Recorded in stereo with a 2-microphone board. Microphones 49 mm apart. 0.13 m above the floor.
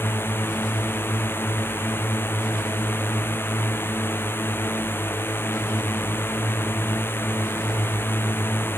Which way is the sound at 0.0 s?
50° left (ahead or behind).